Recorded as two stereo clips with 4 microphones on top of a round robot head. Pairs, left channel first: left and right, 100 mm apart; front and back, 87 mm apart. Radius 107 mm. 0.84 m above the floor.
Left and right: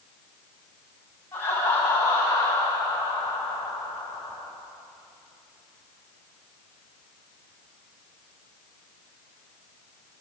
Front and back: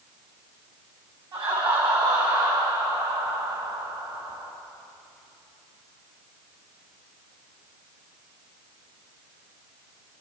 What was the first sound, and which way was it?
Laughter, 160° left.